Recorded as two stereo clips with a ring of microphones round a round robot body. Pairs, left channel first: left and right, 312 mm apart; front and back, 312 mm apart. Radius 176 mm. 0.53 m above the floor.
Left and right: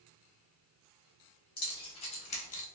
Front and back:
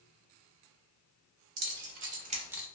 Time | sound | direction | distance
1.6 | keys jangling | 165° left | 1.1 m